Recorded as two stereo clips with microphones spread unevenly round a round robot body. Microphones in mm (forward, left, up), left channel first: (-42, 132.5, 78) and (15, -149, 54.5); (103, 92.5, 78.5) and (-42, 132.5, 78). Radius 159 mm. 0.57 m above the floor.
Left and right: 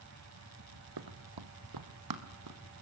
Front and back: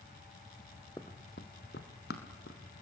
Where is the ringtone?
I don't hear a ringtone.